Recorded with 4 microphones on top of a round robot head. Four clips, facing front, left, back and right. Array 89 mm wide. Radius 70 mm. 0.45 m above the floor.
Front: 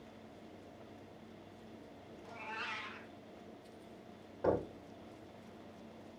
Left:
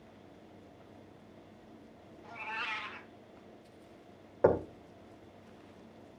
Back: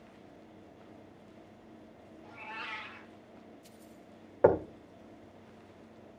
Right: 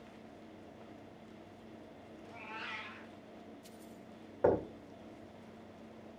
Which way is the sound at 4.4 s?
155° left.